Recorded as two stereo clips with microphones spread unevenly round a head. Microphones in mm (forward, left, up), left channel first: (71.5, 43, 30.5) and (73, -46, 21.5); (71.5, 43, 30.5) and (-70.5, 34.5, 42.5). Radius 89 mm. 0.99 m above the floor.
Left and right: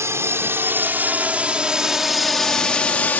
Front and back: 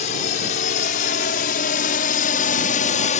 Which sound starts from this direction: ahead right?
A drone, at 0.0 s.